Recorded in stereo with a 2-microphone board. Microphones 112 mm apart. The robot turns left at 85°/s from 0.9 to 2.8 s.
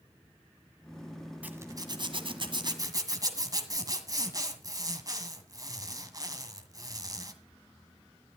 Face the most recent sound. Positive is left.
turn(degrees=-135)